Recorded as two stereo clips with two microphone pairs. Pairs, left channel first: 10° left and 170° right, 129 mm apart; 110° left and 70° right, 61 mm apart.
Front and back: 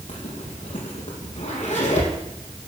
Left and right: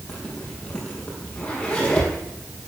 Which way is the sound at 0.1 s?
35° left.